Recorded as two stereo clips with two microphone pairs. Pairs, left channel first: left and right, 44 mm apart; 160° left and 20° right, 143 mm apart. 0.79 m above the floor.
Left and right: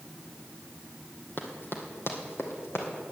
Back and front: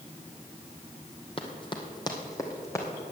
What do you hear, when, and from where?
1.4 s running footsteps: 120° left, 1.5 m; by 2.9 s 90° left, 2.5 m